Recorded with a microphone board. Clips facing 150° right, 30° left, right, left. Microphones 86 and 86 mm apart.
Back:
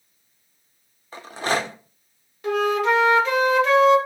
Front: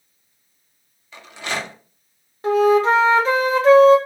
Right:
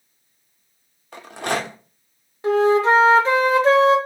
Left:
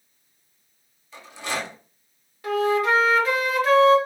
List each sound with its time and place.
1.1 s a rattle: 105° right, 0.5 m
2.4 s a flute: 25° right, 0.6 m